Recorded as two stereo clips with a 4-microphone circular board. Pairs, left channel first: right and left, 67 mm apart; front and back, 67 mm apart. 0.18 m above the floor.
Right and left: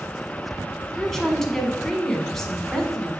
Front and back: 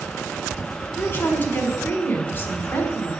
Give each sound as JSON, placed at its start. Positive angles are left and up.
{"t": 1.0, "sound": "a woman speaking", "azimuth_deg": -10, "distance_m": 1.1}